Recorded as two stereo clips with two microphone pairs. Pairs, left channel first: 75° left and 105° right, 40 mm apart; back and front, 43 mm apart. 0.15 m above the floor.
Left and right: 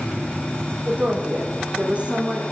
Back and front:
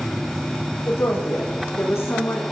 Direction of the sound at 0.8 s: 160° right.